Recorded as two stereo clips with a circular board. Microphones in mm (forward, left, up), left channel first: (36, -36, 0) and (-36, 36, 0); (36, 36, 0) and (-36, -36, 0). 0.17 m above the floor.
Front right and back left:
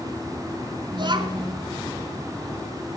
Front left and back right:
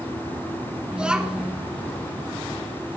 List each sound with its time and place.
0.9 s a child speaking: 145° left, 1.5 m